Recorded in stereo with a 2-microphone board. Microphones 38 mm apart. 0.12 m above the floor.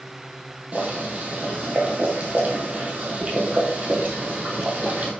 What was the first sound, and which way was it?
Boiling, 40° right (ahead or behind).